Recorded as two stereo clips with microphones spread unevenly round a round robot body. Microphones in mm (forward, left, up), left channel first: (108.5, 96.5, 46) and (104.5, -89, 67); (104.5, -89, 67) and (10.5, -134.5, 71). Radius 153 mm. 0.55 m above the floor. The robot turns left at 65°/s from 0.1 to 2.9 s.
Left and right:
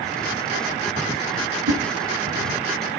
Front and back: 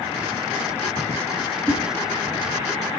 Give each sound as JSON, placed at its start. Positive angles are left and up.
{"t": 1.7, "sound": "a whoosh", "azimuth_deg": -65, "distance_m": 7.0}